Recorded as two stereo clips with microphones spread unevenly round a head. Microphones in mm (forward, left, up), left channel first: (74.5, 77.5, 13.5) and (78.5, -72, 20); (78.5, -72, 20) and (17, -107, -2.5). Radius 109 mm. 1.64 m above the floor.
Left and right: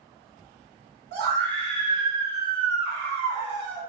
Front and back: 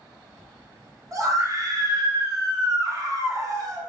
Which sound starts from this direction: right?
A scream, at 1.1 s.